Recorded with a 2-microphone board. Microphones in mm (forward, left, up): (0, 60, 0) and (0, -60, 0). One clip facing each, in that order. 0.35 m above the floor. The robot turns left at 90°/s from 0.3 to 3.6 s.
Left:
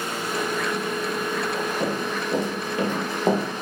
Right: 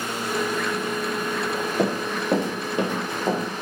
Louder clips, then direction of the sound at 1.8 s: Right 2 dB; 70° right (ahead or behind).